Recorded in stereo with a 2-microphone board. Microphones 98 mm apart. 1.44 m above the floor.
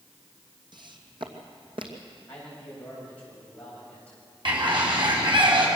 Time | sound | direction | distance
0.7 | footsteps | 50° right (ahead or behind) | 2.5 m
2.3 | a man speaking | 15° left (ahead or behind) | 8.5 m
4.5 | a bird | 55° right (ahead or behind) | 5 m